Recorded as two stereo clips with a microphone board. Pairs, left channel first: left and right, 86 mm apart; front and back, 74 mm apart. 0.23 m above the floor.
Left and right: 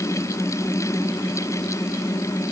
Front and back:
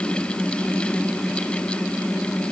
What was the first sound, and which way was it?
Only background noise.